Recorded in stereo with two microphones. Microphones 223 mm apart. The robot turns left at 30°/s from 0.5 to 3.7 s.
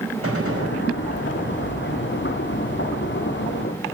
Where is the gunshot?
80° right, 4.5 m; by 0.8 s 85° right, 4.5 m.